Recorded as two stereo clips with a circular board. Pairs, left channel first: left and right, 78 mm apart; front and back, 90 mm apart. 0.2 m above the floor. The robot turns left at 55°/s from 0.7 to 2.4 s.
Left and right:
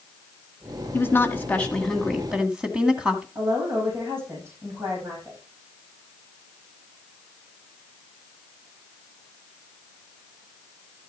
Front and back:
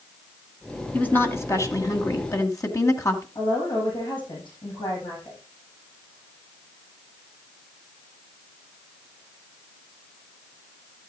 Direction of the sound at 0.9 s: 65° left.